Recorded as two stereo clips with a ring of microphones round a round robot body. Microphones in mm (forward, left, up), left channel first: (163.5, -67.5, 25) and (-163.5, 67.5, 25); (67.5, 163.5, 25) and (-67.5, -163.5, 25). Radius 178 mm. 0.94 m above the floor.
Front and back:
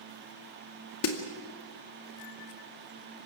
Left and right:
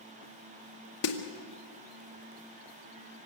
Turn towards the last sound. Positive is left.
turn(degrees=25)